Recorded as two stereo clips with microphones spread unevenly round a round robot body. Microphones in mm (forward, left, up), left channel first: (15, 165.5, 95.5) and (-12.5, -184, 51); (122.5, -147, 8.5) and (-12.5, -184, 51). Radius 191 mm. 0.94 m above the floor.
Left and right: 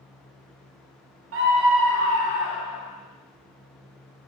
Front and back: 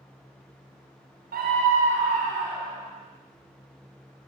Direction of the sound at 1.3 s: 140° right.